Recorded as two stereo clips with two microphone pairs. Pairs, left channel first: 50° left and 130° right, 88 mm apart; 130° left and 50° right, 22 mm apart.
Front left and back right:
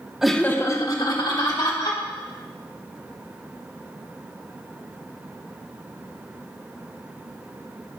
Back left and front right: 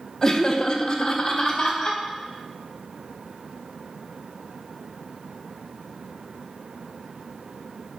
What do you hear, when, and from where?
0.2 s laughter: 150° left, 0.7 m; by 2.0 s 70° left, 2.5 m